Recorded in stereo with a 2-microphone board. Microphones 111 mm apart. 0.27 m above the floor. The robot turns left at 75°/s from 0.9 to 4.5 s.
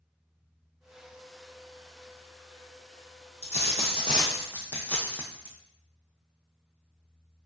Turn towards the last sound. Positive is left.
turn(degrees=15)